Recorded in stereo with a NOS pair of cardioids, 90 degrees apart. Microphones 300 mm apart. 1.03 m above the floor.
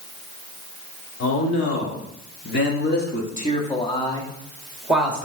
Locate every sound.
1.2 s a man speaking: 55° left, 3.5 m; by 5.2 s 5° right, 2.5 m